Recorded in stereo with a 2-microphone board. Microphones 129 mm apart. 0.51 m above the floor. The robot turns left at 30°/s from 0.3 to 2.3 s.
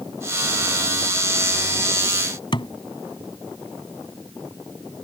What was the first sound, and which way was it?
A thud, 40° left (ahead or behind).